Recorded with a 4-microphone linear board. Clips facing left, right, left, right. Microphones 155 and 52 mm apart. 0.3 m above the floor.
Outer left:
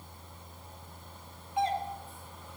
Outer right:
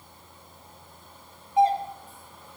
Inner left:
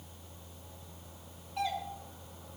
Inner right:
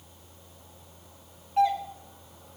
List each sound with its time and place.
1.6 s a doorbell: 35° right (ahead or behind), 2 m